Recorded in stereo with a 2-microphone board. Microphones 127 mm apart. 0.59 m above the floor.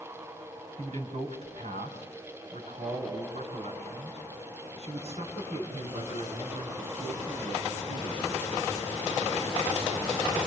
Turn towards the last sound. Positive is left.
turn(degrees=-55)  # may be behind; listen again after turning